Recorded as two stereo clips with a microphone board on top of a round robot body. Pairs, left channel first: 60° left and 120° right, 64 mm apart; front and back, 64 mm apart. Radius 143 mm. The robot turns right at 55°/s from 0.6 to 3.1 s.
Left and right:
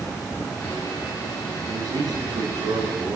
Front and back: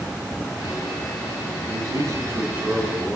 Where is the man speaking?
165° right, 6.5 m; by 3.2 s 85° right, 6.5 m.